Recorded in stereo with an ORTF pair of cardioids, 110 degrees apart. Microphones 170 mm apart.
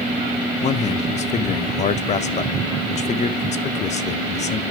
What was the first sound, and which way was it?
A man speaking, 45° left.